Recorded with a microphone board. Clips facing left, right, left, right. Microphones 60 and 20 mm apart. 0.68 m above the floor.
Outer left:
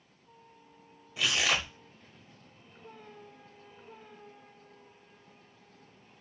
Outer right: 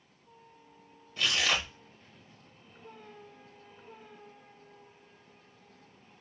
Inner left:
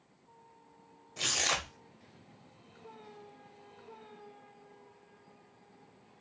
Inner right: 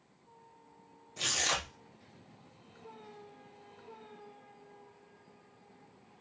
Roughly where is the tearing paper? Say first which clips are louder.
Even, inner left 1 dB; centre.